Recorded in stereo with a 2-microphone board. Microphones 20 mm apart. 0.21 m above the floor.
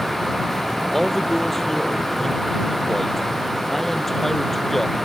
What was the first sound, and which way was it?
A man speaking, 10° left (ahead or behind).